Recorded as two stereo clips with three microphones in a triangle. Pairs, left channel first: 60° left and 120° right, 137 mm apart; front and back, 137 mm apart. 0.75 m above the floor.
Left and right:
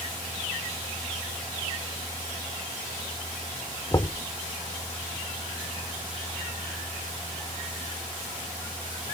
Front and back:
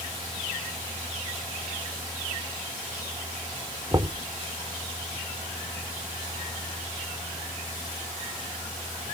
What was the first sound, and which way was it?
Knocking, 120° left.